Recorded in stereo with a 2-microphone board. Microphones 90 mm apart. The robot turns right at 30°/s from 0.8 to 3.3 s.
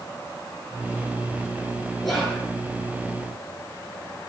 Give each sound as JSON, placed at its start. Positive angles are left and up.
{"t": 2.0, "sound": "whispering", "side_deg": 0, "distance_m": 6.0}